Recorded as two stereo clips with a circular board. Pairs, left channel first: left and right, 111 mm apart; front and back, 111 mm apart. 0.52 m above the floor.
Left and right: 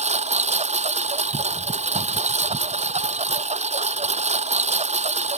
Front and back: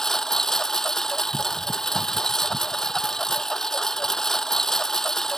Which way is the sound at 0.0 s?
85° right.